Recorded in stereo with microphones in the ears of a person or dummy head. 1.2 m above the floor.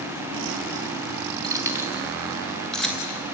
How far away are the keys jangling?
About 1.3 m.